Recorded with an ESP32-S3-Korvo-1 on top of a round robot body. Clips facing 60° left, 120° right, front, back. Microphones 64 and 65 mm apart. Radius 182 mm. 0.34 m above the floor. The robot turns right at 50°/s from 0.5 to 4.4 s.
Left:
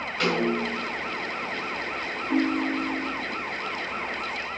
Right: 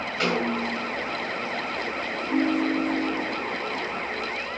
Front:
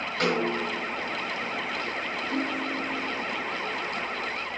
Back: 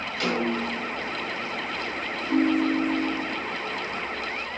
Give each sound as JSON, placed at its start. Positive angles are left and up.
{"t": 0.2, "sound": "a snare drum", "azimuth_deg": -30, "distance_m": 6.5}
{"t": 2.3, "sound": "a ringtone", "azimuth_deg": 135, "distance_m": 0.8}